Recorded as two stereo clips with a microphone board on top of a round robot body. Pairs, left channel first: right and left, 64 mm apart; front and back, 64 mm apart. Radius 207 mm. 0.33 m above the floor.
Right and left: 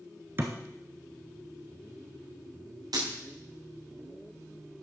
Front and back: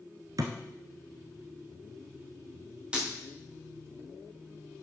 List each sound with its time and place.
0.4 s a thud: 145° left, 1.0 m
2.9 s breaking glass: 105° left, 3.5 m